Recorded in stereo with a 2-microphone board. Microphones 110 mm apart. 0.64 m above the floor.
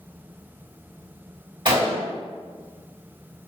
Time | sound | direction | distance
1.6 | a gunshot | 45° right (ahead or behind) | 1.4 m